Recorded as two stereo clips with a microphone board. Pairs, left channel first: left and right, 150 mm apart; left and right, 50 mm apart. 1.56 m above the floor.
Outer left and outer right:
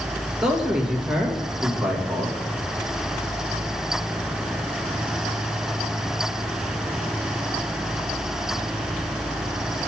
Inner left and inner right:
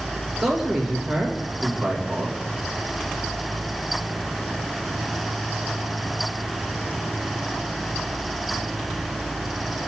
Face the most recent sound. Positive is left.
turn(degrees=-5)  # may be behind; listen again after turning